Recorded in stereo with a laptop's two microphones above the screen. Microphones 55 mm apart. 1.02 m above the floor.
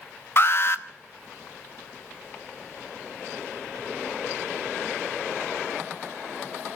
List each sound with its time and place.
0.4 s an alarm: 45° left (ahead or behind), 0.7 m